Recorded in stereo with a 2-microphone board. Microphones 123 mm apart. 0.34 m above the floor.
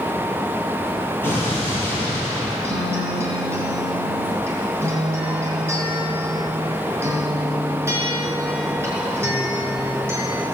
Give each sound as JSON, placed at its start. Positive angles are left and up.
{"t": 1.2, "sound": "an explosion", "side_deg": 15, "distance_m": 7.5}
{"t": 2.6, "sound": "a guitar", "side_deg": -20, "distance_m": 4.5}